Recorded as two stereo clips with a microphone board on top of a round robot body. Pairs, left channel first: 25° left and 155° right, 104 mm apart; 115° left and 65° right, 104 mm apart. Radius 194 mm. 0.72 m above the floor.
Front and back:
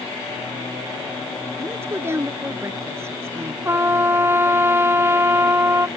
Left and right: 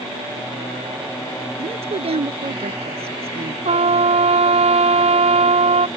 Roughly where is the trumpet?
Right.